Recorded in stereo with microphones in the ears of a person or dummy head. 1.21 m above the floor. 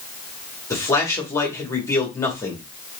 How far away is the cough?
I don't hear a cough.